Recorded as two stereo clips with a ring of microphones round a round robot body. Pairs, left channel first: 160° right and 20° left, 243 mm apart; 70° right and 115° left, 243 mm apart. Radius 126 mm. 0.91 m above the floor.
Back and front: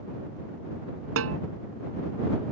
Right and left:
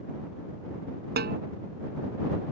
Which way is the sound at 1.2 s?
60° left.